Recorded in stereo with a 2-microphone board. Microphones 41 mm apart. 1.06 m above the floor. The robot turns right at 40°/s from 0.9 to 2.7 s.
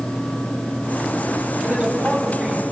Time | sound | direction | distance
1.6 | a man speaking | 35° right | 6 m